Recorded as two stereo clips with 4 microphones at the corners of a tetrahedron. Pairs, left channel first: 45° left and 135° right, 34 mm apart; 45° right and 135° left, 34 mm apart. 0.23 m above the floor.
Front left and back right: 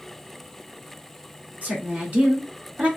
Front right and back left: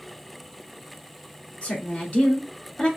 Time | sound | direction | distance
1.6 | a woman speaking | 100° right | 2 m